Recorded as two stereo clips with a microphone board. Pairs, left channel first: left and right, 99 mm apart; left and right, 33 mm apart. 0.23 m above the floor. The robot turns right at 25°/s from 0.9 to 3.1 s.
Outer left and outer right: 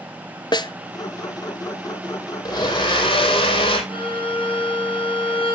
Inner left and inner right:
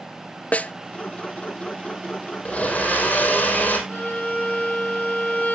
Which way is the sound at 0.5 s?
45° left (ahead or behind).